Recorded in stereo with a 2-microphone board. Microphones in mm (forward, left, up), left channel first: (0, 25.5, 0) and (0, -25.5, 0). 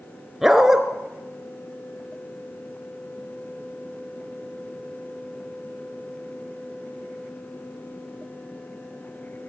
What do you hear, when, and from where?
0.4 s a dog barking: 5° right (ahead or behind), 2.5 m